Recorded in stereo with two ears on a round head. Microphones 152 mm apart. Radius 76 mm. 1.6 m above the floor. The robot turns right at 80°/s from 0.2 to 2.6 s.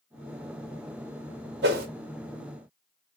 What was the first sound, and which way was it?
A whoosh, 70° right (ahead or behind).